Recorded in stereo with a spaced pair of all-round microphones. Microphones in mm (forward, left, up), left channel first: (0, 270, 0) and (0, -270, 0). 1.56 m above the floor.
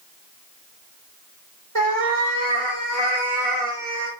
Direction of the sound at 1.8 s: 65° right (ahead or behind).